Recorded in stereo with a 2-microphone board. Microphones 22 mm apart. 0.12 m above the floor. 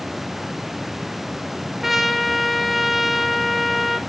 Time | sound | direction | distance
1.8 | a trumpet | 10° right (ahead or behind) | 0.9 m